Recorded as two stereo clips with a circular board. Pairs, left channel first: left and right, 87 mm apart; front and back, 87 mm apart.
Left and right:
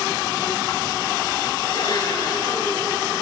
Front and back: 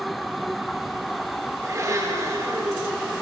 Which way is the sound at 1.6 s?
125° left.